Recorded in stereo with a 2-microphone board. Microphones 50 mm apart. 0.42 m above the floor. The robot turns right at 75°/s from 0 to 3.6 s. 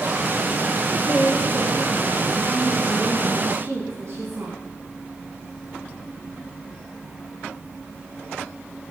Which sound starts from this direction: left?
A woman speaking, at 1.1 s.